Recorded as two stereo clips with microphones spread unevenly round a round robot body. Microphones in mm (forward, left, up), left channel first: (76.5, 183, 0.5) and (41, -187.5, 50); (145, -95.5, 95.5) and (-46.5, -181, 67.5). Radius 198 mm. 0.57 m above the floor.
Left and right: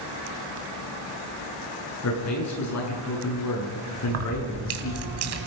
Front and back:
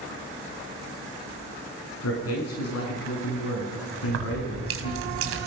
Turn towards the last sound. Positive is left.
turn(degrees=-155)